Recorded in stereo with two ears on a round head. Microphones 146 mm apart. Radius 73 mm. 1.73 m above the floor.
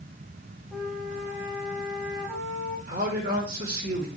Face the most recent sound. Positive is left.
turn(degrees=-60)  # may be behind; listen again after turning